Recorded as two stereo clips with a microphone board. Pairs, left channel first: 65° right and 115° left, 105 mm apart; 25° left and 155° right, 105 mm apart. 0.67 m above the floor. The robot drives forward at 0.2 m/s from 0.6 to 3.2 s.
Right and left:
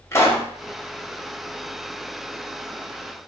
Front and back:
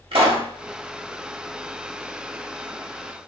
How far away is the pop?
About 1.0 m.